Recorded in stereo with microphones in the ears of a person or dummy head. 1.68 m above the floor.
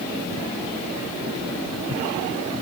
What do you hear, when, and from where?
Only background noise.